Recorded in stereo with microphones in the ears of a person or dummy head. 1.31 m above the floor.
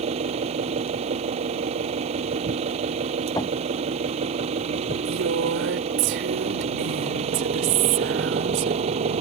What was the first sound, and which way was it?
An engine running, 35° right (ahead or behind).